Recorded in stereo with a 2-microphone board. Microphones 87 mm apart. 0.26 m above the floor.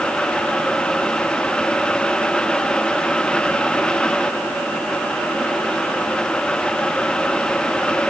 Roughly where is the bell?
No bell in this recording.